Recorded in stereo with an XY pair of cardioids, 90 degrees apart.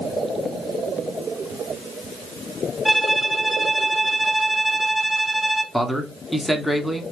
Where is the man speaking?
Straight ahead, 1.3 m.